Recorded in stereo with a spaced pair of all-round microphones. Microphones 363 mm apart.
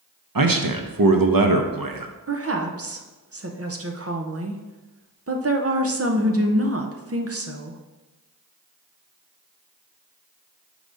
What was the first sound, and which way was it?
A man speaking, 60° right (ahead or behind).